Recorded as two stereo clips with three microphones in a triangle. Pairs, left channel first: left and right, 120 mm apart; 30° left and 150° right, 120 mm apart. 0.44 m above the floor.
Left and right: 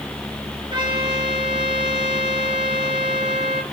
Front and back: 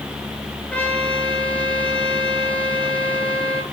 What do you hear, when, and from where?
0.7 s a trumpet: 45° right, 1.5 m